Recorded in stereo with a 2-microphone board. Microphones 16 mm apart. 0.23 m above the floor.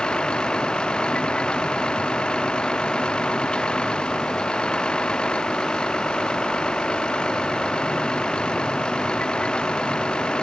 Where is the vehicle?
80° left.